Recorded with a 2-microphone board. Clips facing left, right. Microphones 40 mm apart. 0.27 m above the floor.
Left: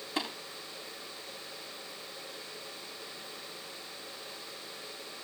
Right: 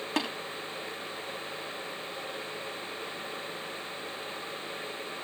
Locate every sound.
0.2 s tapping: 65° right (ahead or behind), 6.5 m